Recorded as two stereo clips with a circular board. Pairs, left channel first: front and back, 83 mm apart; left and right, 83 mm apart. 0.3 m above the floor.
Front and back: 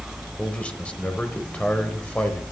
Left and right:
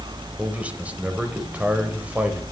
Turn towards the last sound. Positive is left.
turn(degrees=-50)